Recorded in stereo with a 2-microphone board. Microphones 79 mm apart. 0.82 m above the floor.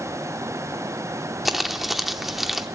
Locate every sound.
1.4 s crumpling: 5° right (ahead or behind), 0.8 m